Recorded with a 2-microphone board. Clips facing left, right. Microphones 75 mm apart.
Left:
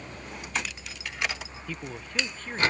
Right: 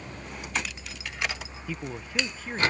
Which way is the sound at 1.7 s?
5° right (ahead or behind).